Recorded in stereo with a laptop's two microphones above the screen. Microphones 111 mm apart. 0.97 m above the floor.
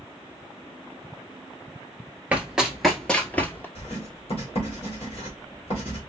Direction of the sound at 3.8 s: 60° left (ahead or behind).